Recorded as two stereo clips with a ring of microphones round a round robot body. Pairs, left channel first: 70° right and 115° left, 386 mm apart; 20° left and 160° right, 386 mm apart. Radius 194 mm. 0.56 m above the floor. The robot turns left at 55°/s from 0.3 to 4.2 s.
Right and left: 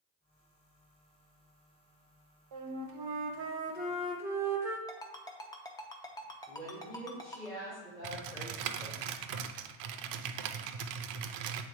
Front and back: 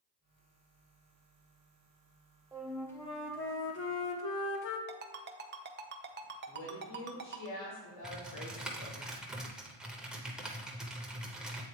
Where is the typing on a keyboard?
115° left, 0.6 m.